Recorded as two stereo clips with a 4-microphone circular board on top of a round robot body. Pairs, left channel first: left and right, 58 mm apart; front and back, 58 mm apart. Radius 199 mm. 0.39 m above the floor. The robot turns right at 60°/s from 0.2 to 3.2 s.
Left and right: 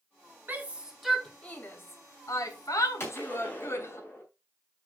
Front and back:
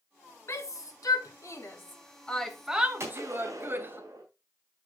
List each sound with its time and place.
0.5 s a shout: 35° right, 2 m; by 4.0 s 130° left, 2 m
3.0 s a gunshot: 135° left, 3.5 m; by 4.2 s 150° left, 3.5 m